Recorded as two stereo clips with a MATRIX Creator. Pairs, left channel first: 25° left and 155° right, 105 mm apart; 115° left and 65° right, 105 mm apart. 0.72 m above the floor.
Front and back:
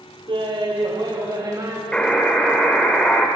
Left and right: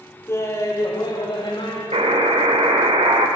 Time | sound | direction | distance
0.3 | laughter | 175° left | 2 m
1.9 | a buzzer | 55° right | 1.4 m